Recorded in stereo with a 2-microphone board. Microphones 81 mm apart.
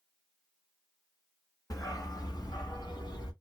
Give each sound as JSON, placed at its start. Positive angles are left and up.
{"t": 1.7, "sound": "a dog barking", "side_deg": 50, "distance_m": 1.1}